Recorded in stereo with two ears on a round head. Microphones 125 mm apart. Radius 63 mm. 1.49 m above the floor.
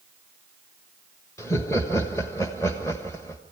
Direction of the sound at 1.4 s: 20° left (ahead or behind).